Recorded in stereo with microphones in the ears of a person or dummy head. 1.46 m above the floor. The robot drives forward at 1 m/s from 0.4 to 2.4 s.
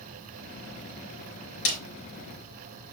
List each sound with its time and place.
1.6 s a snare drum: 65° left (ahead or behind), 4 m